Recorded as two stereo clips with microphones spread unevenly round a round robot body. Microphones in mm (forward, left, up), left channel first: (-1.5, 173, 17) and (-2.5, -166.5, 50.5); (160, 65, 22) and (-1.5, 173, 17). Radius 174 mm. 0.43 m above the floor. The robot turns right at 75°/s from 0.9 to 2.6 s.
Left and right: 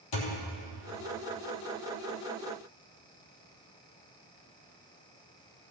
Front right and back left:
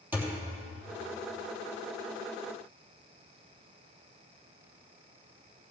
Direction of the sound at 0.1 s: 65° left.